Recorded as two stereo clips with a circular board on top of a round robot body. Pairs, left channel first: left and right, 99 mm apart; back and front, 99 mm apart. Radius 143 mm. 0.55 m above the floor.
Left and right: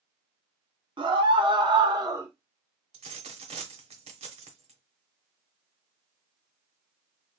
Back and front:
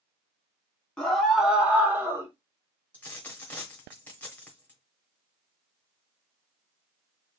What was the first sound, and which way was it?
A scream, 95° right.